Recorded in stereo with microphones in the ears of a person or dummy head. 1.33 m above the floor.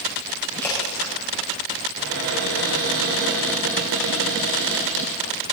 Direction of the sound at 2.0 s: 60° right (ahead or behind).